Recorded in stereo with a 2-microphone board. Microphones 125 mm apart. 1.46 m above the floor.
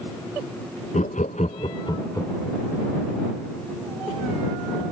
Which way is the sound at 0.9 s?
70° left (ahead or behind).